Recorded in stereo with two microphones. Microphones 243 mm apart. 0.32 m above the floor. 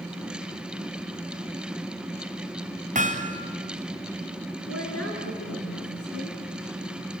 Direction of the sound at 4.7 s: 70° left (ahead or behind).